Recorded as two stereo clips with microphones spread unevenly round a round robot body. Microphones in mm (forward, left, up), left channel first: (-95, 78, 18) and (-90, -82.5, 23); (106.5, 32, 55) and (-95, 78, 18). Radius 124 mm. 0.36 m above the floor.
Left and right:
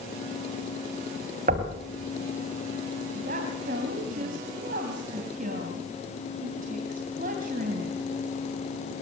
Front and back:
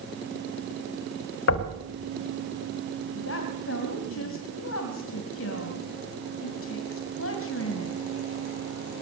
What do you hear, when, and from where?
1.5 s knocking: 35° right, 2 m
3.1 s a woman speaking: 40° right, 2.5 m